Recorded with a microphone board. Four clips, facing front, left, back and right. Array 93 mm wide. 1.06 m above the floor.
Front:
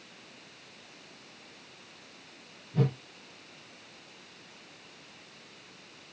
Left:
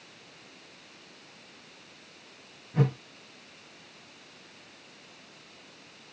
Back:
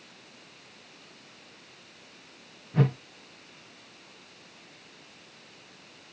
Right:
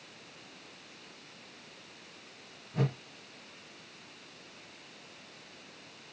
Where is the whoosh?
150° left, 0.6 m.